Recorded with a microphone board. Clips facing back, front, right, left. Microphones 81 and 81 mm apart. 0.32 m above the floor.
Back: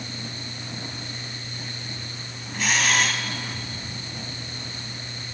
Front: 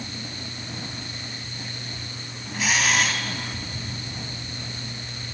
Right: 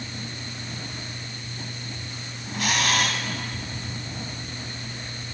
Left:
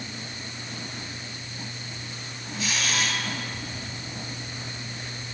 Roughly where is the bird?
I don't hear a bird.